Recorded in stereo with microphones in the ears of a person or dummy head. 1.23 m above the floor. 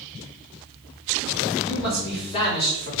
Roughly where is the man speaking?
Left.